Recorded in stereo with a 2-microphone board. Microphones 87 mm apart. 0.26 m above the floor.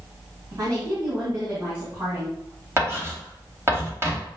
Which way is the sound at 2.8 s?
30° right (ahead or behind).